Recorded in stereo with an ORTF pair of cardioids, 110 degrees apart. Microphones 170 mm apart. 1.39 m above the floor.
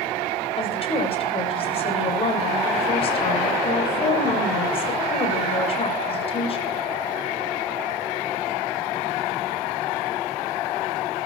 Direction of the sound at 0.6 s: 35° left.